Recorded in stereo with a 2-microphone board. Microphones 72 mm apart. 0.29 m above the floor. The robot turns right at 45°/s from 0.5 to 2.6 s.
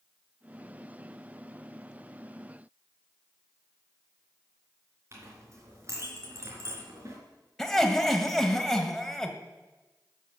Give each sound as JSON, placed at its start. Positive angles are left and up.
{"t": 5.1, "sound": "a clink", "side_deg": -40, "distance_m": 3.0}
{"t": 7.6, "sound": "laughter", "side_deg": 5, "distance_m": 1.3}